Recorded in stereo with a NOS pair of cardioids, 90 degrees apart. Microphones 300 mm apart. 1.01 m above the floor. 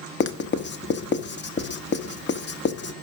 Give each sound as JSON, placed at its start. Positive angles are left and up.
{"t": 0.2, "sound": "writing", "azimuth_deg": 35, "distance_m": 0.7}